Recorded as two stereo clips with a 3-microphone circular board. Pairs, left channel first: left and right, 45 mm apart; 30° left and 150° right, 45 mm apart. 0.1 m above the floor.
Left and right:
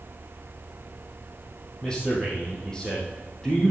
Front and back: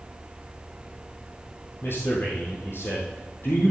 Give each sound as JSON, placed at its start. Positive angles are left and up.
{"t": 1.8, "sound": "a man speaking", "azimuth_deg": 15, "distance_m": 3.0}